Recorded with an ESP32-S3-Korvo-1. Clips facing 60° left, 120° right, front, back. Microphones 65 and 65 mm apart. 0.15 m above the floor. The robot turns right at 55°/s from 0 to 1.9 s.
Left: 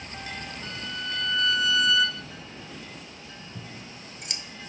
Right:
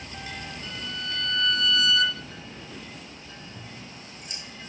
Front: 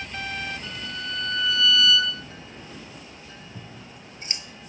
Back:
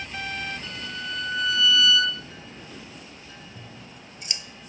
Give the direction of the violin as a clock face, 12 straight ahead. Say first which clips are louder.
Left 1 dB, even; 9 o'clock.